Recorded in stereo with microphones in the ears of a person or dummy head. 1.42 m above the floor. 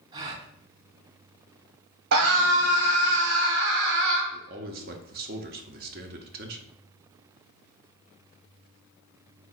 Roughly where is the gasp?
Right.